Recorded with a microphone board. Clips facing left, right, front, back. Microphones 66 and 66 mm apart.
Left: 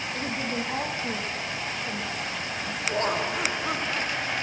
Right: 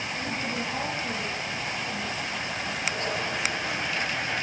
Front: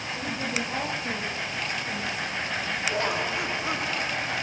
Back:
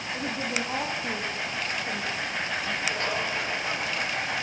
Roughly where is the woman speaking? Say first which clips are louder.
Left 2 dB, even; behind left.